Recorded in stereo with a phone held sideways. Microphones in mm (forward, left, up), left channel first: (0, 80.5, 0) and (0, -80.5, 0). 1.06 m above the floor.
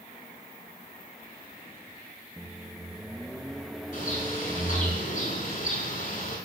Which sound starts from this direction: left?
A bird, at 3.9 s.